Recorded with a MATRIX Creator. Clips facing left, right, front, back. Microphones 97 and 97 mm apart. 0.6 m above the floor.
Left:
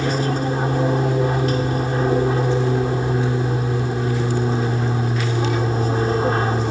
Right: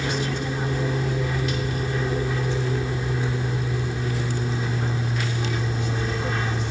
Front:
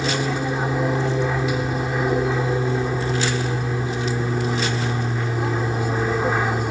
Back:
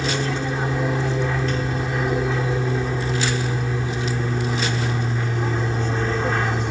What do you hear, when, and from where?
0.0 s an aircraft: 75° left